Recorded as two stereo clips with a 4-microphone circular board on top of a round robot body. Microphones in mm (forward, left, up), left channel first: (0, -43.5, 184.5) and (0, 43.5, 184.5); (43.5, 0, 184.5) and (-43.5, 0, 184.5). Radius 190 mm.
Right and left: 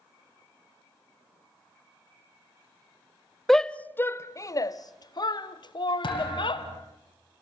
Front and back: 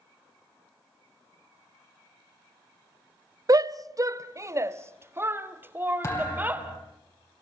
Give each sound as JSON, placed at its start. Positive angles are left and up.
{"t": 3.5, "sound": "a shout", "azimuth_deg": -175, "distance_m": 0.9}
{"t": 6.0, "sound": "a thud", "azimuth_deg": -55, "distance_m": 4.5}